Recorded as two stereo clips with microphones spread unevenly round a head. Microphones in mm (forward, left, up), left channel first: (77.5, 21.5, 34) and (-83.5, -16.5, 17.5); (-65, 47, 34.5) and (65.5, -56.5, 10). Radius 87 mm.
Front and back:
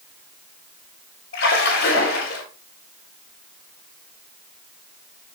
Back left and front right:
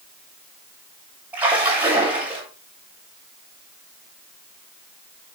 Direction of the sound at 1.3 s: 45° left.